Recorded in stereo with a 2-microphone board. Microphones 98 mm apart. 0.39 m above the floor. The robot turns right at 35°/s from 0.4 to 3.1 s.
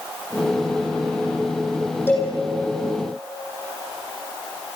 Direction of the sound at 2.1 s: 20° left (ahead or behind).